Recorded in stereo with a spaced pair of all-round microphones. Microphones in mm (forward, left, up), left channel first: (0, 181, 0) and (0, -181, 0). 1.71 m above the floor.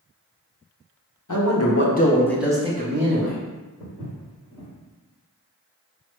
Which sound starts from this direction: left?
A man speaking, at 1.3 s.